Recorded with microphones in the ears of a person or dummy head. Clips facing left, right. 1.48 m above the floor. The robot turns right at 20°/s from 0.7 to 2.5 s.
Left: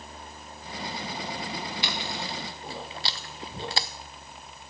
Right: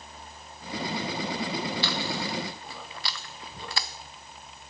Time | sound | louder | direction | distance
1.8 | chewing | right 3 dB | 15° left (ahead or behind) | 0.7 m